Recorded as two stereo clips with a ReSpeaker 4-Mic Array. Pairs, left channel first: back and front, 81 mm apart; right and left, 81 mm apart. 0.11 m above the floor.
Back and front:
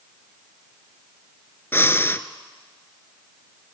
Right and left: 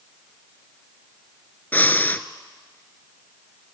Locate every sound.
1.7 s breathing: 140° right, 0.5 m